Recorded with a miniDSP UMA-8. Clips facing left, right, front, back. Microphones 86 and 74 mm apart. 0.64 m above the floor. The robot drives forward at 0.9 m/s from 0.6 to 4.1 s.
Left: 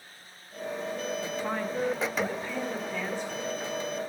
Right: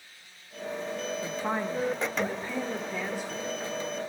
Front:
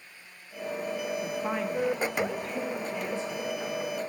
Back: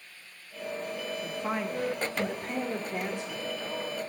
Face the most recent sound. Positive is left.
turn(degrees=-170)